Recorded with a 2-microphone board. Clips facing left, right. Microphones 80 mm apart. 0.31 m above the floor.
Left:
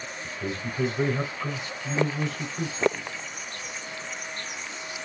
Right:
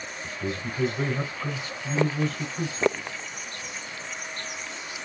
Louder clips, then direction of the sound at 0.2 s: Right 1 dB; 15° left (ahead or behind).